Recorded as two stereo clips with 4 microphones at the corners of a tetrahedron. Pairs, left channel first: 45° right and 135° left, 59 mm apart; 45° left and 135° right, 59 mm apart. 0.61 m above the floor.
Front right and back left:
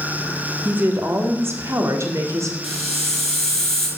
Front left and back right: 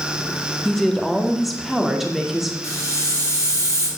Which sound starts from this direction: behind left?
A woman speaking, at 0.7 s.